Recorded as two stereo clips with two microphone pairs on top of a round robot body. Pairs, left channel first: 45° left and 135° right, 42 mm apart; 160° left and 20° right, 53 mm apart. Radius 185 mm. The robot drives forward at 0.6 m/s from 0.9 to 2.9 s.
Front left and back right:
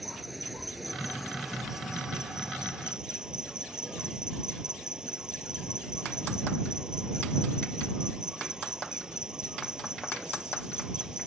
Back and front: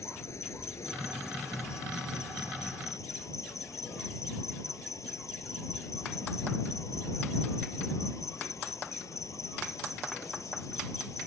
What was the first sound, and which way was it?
An insect, 135° left.